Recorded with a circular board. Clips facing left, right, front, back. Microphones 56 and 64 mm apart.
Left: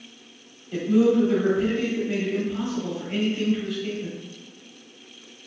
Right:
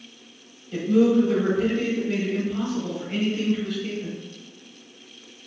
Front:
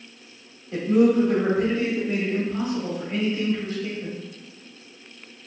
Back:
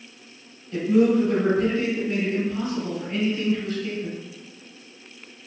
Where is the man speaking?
20° left, 1.3 m.